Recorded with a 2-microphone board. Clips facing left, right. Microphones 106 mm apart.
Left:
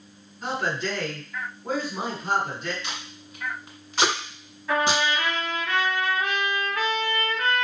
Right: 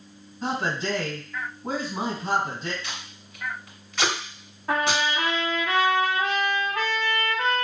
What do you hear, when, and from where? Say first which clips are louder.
0.4 s a man speaking: right 1 dB; 30° right (ahead or behind), 1.9 m
2.8 s tape being pulled: left 2 dB; 30° left (ahead or behind), 1.2 m
4.7 s a trumpet: left 1 dB; 40° right (ahead or behind), 0.8 m